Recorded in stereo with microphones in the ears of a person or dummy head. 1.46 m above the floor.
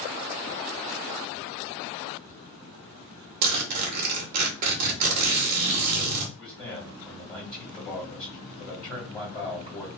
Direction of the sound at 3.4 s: 45° right (ahead or behind).